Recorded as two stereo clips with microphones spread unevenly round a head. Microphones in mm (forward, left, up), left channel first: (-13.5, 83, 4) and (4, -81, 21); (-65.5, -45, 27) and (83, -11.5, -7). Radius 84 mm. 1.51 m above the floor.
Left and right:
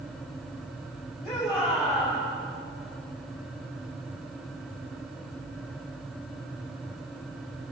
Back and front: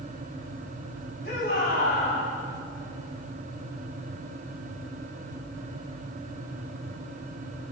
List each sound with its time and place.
1.2 s a shout: 170° right, 8 m